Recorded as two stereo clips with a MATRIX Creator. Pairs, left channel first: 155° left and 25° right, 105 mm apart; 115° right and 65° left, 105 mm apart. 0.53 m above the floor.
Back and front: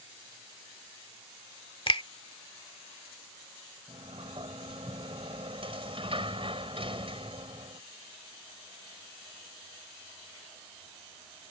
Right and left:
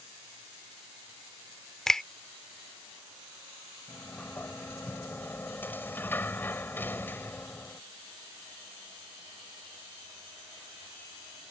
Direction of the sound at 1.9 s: 165° left.